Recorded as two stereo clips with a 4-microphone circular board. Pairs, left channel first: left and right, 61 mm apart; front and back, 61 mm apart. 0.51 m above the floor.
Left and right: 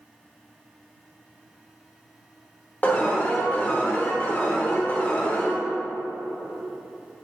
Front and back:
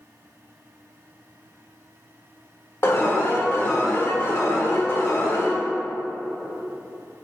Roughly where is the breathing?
I don't hear breathing.